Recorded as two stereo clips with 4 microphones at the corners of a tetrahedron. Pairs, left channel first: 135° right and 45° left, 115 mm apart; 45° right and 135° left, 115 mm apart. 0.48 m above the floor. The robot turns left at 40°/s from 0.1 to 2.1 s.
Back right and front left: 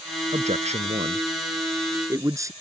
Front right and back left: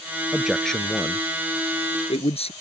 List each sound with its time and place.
0.3 s a man speaking: 55° left; by 2.5 s 15° right